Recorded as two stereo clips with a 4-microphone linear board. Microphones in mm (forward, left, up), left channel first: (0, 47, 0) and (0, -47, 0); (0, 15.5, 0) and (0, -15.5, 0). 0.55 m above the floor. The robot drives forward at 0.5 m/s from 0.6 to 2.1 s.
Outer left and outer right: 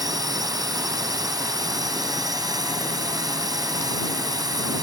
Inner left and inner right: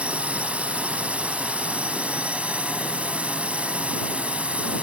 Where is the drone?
45° right (ahead or behind).